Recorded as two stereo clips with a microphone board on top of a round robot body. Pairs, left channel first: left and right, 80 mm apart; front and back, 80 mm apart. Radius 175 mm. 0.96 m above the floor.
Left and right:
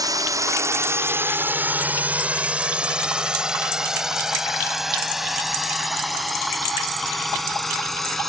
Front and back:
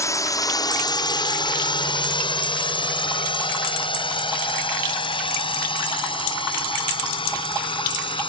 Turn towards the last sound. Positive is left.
turn(degrees=5)